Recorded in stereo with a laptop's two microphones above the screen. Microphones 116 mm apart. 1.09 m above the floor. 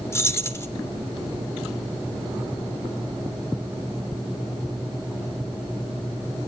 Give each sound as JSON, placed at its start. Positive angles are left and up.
{"t": 0.1, "sound": "keys jangling", "side_deg": 25, "distance_m": 2.5}